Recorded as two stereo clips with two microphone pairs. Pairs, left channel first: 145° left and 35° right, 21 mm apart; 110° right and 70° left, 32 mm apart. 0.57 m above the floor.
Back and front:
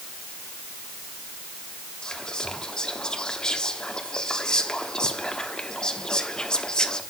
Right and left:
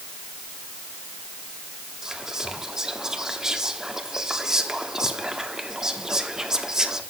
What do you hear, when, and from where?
2.0 s whispering: 125° left, 1.2 m